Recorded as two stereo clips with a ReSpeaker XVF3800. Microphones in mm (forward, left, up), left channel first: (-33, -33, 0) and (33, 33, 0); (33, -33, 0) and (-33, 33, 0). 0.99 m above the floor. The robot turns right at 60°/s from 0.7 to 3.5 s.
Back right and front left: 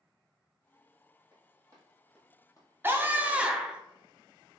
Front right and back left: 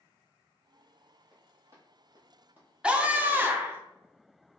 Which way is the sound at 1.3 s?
45° left.